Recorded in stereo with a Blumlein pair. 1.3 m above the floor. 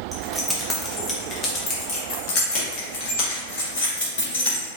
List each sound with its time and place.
0.1 s keys jangling: 10° right, 1.0 m; by 4.7 s 65° left, 2.5 m